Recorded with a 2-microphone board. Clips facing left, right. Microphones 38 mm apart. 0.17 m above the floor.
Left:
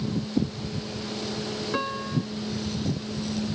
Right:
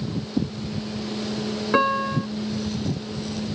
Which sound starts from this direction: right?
A piano, at 1.7 s.